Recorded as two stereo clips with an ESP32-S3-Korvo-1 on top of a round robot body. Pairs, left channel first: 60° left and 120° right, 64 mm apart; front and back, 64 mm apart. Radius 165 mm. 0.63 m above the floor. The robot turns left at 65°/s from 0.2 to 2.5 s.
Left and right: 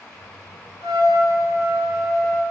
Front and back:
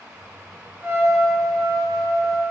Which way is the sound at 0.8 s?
120° right.